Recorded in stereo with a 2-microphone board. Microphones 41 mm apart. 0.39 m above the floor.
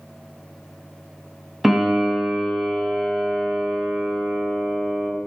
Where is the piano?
5° right (ahead or behind), 0.5 m.